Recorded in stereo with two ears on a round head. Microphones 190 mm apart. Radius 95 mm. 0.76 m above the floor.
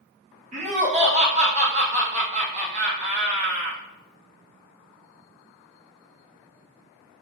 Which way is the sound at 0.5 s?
35° right (ahead or behind).